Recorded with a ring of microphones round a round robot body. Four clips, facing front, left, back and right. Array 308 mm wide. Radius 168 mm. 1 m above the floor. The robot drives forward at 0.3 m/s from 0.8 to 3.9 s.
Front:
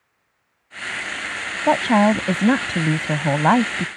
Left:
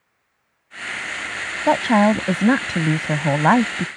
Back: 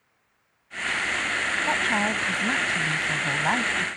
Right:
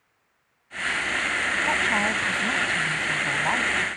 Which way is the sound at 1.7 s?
50° left.